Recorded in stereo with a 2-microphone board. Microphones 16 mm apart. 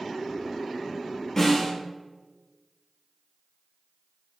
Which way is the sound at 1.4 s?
30° left (ahead or behind).